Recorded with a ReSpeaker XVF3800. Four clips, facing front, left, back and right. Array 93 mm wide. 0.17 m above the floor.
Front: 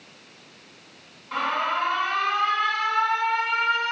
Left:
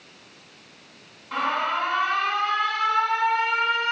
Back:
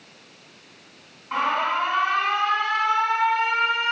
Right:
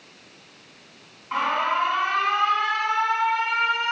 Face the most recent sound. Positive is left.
turn(degrees=-135)